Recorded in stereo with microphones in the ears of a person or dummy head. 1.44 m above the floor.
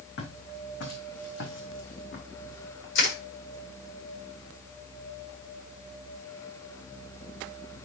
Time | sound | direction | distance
0.2 | footsteps | 70° left (ahead or behind) | 4.5 m
3.0 | crushing | 75° left (ahead or behind) | 7 m